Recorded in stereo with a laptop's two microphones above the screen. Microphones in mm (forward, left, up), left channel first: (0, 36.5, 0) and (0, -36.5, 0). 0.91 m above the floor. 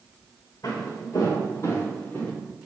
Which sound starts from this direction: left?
Footsteps, at 0.6 s.